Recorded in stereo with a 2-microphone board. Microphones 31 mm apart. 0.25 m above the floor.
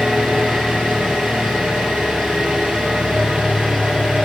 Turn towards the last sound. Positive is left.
turn(degrees=-45)  # may be behind; listen again after turning